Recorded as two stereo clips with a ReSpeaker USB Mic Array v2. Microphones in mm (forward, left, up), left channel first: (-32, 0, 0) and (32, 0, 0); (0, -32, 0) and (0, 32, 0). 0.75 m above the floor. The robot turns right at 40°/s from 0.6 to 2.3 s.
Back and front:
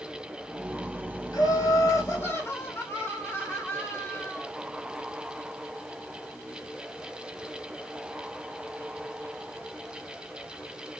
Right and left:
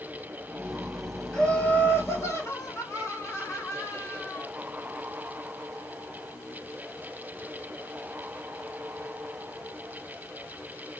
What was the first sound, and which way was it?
Laughter, 170° right.